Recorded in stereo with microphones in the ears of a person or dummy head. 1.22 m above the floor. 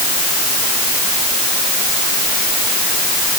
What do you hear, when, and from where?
Only background noise.